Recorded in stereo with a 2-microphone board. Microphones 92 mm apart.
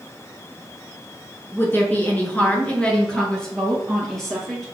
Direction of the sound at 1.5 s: 25° left (ahead or behind).